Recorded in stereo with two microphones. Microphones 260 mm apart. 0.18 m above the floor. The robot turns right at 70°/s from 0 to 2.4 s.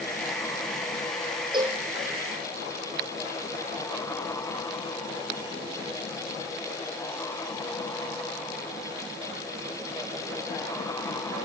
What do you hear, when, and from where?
1.5 s a cowbell: 20° right (ahead or behind), 2 m; by 1.8 s 5° left (ahead or behind), 2 m